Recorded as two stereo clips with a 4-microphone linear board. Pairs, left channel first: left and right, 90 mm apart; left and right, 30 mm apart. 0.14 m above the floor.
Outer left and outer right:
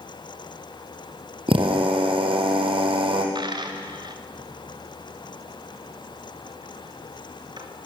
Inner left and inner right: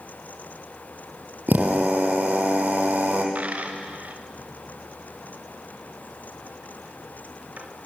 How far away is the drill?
About 3 m.